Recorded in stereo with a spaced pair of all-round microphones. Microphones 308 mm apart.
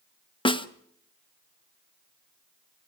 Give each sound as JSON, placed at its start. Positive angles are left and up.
{"t": 0.5, "sound": "a snare drum", "side_deg": 15, "distance_m": 0.8}